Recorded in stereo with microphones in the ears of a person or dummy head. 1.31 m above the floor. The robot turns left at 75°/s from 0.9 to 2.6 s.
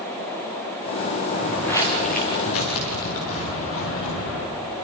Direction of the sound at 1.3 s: 15° right (ahead or behind).